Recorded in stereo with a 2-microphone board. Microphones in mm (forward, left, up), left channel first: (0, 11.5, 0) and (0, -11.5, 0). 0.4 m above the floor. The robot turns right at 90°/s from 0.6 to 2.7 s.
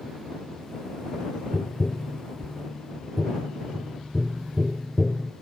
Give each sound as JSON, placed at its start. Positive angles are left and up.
{"t": 1.5, "sound": "tapping", "side_deg": 60}